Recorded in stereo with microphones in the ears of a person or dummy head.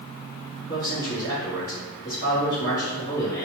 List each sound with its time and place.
0.7 s a man speaking: 20° left (ahead or behind), 1.7 m